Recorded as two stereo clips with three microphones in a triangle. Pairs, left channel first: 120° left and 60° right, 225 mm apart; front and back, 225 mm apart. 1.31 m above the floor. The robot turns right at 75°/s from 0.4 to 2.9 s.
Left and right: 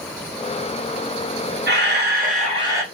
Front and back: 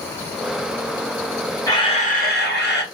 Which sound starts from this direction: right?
A camera shutter, at 1.7 s.